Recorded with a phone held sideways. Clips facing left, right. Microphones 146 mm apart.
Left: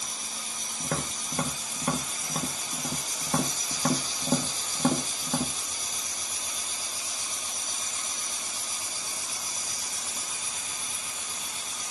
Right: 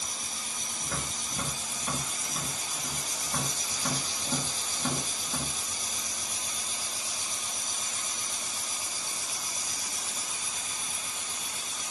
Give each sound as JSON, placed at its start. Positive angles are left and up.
{"t": 0.8, "sound": "tapping", "side_deg": 65, "distance_m": 1.8}